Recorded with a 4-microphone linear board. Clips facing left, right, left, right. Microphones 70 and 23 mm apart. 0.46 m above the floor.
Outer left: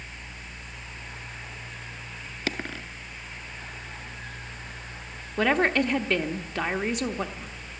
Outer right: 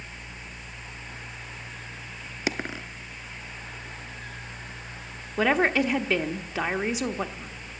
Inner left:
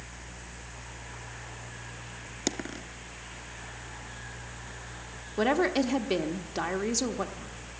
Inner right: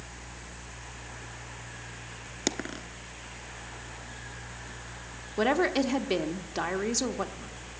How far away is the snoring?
I don't hear snoring.